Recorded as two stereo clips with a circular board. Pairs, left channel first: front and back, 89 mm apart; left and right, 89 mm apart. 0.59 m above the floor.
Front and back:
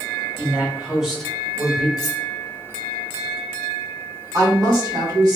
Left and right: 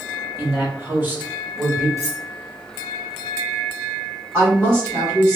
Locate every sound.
0.4 s a man speaking: 130° right, 1.1 m; by 1.9 s 20° right, 1.0 m
2.0 s cutlery clinking: 40° right, 0.7 m
4.3 s a woman speaking: 150° right, 1.6 m